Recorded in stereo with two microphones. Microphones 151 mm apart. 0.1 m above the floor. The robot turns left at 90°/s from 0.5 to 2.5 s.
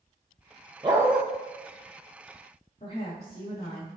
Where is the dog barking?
150° right, 1.0 m; by 1.2 s straight behind, 1.0 m.